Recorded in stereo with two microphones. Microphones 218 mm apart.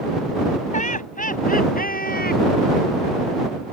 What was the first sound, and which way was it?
Laughter, 35° left (ahead or behind).